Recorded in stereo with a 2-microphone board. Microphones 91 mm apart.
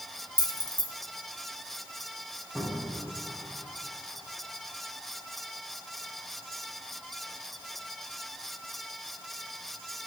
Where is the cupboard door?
15° right (ahead or behind), 5.5 m.